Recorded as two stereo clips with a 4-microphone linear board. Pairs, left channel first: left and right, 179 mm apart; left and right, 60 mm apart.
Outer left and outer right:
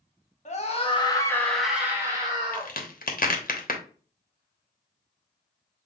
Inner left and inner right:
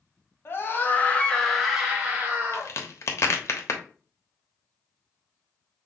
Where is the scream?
45° left (ahead or behind), 1.4 m; by 2.7 s 35° right (ahead or behind), 1.6 m.